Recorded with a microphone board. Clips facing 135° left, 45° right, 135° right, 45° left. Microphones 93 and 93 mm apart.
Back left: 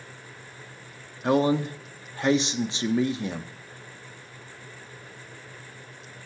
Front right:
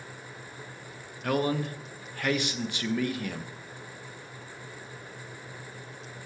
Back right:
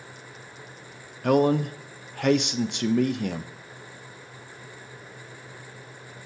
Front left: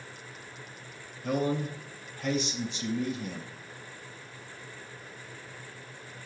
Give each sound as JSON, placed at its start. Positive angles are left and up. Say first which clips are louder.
{"t": 1.2, "sound": "a man speaking", "louder": "back left 6 dB, back right 9 dB", "azimuth_deg": -155, "distance_m": 0.6}